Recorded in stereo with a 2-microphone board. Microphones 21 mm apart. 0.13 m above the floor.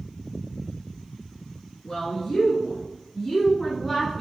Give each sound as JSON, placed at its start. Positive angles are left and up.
{"t": 1.8, "sound": "a woman speaking", "side_deg": 40, "distance_m": 1.9}